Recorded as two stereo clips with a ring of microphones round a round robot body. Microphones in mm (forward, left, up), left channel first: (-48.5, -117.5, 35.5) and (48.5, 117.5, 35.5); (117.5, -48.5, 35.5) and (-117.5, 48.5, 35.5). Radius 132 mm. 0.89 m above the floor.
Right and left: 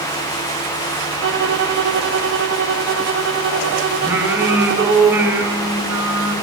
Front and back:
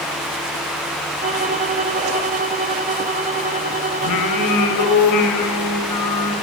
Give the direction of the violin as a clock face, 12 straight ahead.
9 o'clock.